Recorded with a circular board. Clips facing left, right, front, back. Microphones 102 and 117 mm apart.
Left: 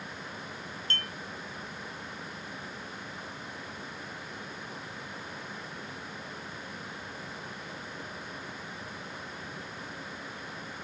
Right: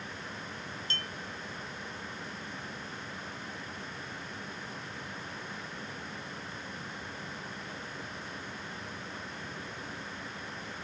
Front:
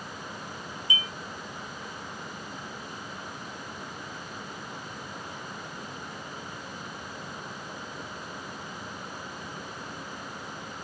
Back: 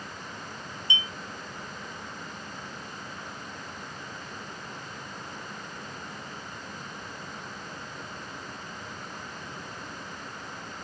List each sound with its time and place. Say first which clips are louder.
0.9 s a clink: left 5 dB, even; 120° left